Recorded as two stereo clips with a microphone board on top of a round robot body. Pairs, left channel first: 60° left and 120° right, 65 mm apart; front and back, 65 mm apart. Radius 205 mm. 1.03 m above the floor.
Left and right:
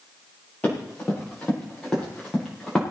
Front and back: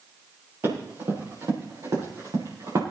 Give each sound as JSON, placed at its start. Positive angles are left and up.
{"t": 0.6, "sound": "running footsteps", "azimuth_deg": 130, "distance_m": 7.0}